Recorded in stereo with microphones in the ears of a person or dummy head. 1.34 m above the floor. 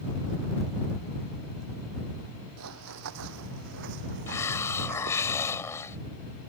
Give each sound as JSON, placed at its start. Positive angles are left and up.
{"t": 2.6, "sound": "running footsteps", "side_deg": -65}
{"t": 4.3, "sound": "a hiss", "side_deg": 15}